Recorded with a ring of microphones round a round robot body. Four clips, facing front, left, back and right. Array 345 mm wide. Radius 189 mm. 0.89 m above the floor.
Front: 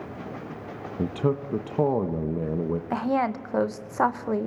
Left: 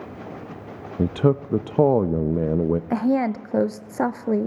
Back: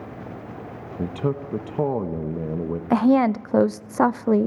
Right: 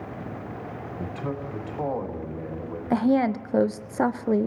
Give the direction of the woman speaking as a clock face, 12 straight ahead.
6 o'clock.